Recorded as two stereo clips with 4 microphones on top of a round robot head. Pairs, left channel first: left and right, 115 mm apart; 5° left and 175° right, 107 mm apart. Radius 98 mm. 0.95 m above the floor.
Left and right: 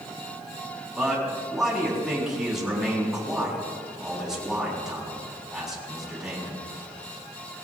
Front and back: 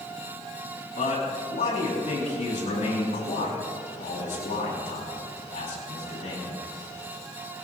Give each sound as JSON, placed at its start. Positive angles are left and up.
{"t": 0.9, "sound": "a man speaking", "azimuth_deg": -5, "distance_m": 7.0}